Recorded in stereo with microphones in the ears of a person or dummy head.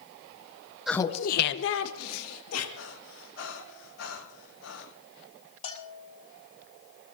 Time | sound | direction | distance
0.9 | laughter | centre (ahead or behind) | 0.6 m
2.8 | breathing | 80° left | 6.5 m
5.6 | a bell | 40° left (ahead or behind) | 3 m